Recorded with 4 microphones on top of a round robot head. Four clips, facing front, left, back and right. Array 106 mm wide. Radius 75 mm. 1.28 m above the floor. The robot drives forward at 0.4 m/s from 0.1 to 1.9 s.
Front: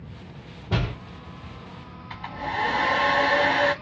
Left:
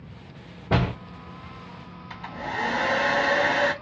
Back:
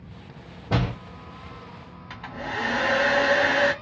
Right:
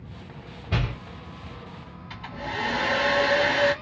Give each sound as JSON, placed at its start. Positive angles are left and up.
{"t": 0.7, "sound": "a door slam", "azimuth_deg": 110, "distance_m": 0.6}
{"t": 2.1, "sound": "a hair dryer", "azimuth_deg": 165, "distance_m": 1.6}